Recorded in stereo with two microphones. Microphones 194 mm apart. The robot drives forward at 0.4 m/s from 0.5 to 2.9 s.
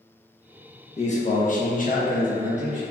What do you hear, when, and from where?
1.0 s a man speaking: 35° left (ahead or behind), 0.6 m